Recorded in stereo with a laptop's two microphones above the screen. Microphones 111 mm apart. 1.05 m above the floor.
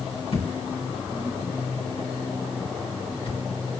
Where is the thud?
55° left (ahead or behind), 3 m.